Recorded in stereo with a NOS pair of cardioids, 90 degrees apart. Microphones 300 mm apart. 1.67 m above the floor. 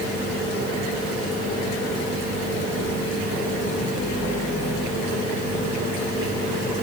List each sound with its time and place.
Only background noise.